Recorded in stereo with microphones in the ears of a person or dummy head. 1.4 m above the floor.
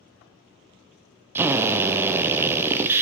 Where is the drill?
15° right (ahead or behind), 0.5 m.